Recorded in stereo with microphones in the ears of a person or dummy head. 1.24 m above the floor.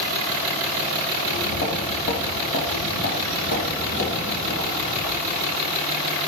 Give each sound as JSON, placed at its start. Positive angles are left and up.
{"t": 1.2, "sound": "footsteps", "side_deg": 60, "distance_m": 2.5}